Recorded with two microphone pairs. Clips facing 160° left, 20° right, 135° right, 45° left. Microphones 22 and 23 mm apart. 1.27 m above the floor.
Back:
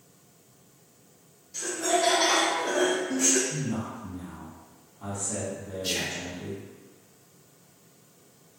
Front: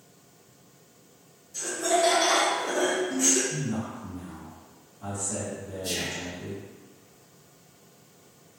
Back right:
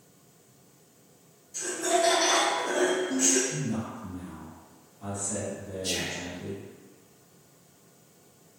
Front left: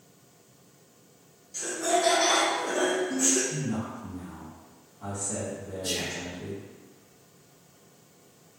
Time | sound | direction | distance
1.5 | laughter | 110° left | 1.6 m
3.5 | a man speaking | 110° left | 1.6 m
5.8 | whispering | 155° left | 0.5 m